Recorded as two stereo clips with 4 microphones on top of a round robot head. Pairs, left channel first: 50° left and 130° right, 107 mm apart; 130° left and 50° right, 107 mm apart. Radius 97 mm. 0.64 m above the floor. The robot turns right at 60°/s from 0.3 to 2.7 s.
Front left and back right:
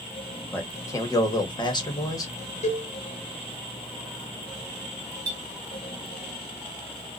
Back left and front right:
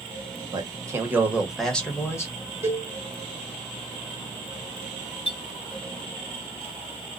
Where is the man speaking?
20° right, 1.2 m; by 2.3 s 85° left, 1.2 m.